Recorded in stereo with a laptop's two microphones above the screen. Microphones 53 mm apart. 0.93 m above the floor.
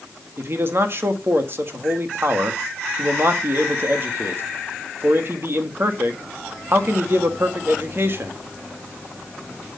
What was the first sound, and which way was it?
A man speaking, 45° right (ahead or behind).